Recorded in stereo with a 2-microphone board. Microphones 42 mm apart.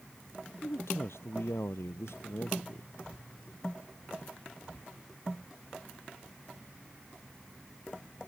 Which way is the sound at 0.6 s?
85° left.